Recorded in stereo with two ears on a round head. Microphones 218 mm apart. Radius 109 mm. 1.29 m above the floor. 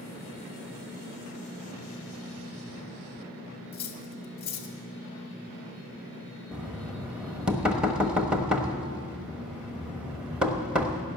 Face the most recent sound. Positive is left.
turn(degrees=-5)  # may be behind; listen again after turning